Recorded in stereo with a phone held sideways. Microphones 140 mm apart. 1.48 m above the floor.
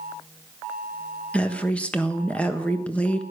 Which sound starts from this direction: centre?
A woman speaking, at 1.3 s.